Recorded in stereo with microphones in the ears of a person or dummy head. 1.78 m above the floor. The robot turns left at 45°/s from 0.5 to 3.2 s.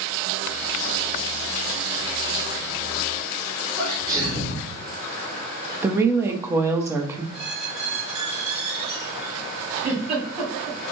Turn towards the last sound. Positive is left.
turn(degrees=-40)  # may be behind; listen again after turning